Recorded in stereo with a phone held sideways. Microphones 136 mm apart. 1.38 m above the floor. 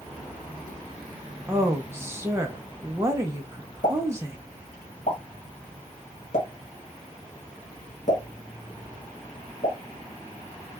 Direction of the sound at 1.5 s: 20° right (ahead or behind).